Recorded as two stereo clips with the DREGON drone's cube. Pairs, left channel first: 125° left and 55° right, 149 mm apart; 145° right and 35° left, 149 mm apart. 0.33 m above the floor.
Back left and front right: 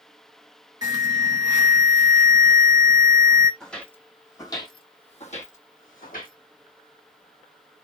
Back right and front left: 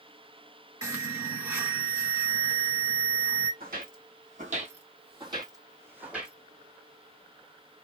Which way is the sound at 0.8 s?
20° right.